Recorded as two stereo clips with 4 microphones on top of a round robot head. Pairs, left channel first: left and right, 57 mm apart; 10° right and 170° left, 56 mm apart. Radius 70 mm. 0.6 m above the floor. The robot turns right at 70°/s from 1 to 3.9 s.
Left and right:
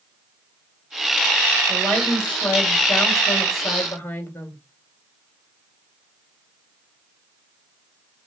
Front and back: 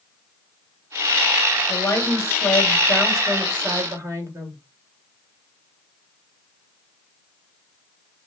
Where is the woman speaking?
15° right, 1.9 m; by 4.6 s 140° left, 1.9 m.